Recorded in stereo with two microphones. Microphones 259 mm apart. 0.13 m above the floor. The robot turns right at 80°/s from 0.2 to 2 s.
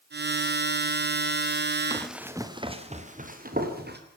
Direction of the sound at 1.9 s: 15° left (ahead or behind).